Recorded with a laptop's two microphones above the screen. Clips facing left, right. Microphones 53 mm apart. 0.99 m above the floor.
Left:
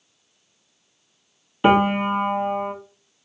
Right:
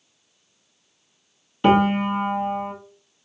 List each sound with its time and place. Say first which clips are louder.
1.6 s a piano: even; 20° left (ahead or behind), 0.6 m